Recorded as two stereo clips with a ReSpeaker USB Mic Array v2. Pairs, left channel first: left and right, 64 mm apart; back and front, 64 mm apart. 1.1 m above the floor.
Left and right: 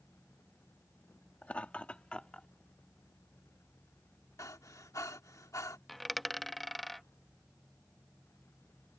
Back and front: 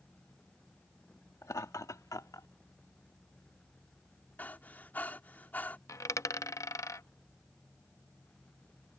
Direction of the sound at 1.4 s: 155° left.